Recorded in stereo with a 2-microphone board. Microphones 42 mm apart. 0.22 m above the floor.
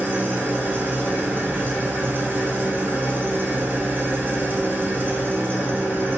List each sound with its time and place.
0.0 s an engine running: 50° right (ahead or behind), 0.8 m